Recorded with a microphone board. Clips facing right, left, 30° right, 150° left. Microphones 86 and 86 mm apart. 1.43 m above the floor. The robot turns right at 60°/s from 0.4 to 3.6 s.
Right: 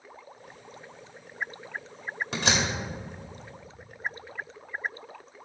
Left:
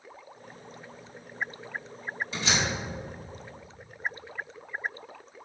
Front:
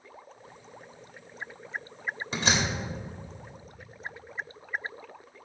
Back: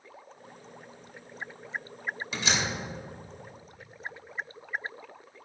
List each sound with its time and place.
2.3 s a door slam: 80° right, 1.8 m; by 2.7 s 60° right, 1.8 m